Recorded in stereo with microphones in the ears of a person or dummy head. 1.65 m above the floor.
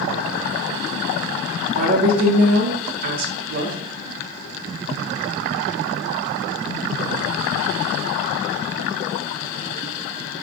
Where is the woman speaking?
55° right (ahead or behind), 0.7 m.